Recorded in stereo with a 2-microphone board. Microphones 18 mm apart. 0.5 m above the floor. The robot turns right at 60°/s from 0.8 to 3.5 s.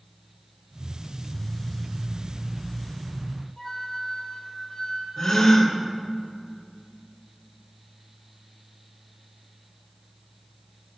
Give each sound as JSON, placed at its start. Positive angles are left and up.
{"t": 3.6, "sound": "a flute", "side_deg": 55, "distance_m": 5.0}
{"t": 5.2, "sound": "a gasp", "side_deg": 55, "distance_m": 2.0}